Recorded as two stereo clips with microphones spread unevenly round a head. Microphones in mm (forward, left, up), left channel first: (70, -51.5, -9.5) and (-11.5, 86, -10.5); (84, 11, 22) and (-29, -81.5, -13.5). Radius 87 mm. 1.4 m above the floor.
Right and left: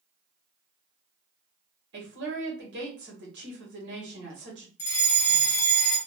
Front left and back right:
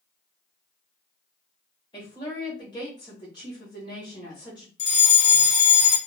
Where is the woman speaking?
110° left, 1.7 m.